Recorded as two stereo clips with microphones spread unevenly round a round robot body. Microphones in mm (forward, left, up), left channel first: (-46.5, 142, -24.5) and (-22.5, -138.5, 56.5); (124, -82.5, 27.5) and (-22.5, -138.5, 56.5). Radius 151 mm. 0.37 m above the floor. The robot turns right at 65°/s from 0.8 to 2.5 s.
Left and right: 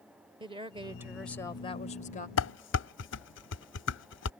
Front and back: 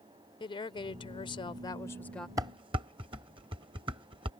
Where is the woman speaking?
Straight ahead; by 2.3 s 95° left.